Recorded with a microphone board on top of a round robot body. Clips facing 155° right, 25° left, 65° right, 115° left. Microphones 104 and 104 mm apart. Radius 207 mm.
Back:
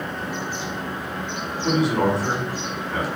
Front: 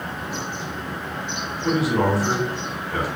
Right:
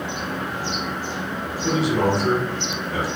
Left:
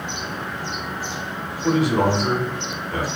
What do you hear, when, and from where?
1.6 s a man speaking: 105° left, 1.5 m